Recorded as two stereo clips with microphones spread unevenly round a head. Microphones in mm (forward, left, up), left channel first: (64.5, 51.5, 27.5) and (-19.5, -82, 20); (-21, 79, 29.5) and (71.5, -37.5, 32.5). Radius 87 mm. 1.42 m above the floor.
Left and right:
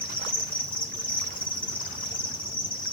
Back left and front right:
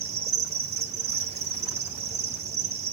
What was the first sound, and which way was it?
An insect, 5° right.